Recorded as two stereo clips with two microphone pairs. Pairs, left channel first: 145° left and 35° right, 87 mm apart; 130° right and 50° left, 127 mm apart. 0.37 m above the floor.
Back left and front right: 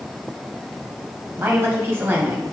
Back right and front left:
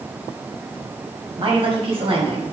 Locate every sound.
1.4 s a woman speaking: 20° left, 2.5 m